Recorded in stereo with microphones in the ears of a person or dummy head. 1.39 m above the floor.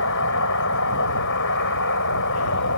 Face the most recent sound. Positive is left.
turn(degrees=65)  # may be behind; listen again after turning